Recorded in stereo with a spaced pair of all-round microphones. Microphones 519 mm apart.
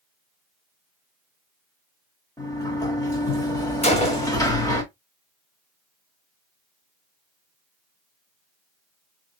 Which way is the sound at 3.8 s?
10° left (ahead or behind).